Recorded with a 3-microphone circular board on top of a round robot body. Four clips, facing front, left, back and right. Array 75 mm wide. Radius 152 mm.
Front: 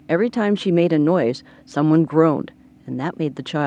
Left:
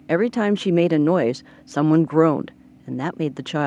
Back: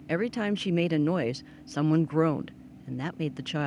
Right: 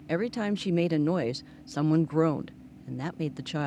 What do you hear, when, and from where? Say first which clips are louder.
0.1 s a woman speaking: left 10 dB, front 10 dB; 40° left